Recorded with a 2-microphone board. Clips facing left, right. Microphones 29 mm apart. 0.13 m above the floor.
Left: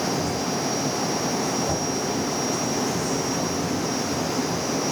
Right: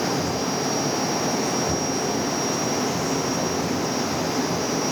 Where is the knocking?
20° right (ahead or behind), 6 m.